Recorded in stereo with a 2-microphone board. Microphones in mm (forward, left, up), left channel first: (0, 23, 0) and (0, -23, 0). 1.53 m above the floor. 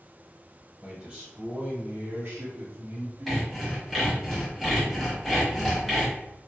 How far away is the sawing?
About 1.1 m.